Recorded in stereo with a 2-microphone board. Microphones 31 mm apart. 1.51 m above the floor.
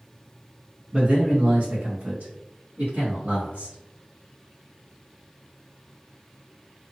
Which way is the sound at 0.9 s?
35° right (ahead or behind).